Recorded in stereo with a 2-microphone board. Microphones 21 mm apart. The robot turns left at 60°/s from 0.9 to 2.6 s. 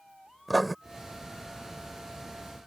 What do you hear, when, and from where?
0.5 s writing: centre (ahead or behind)